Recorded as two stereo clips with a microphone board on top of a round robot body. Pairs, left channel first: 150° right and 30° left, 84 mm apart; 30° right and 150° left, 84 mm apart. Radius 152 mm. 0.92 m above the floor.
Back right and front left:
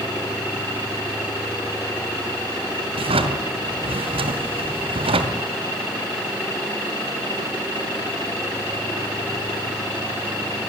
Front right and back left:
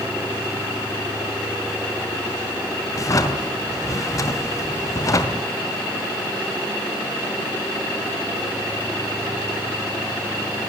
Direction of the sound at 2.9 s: 25° left.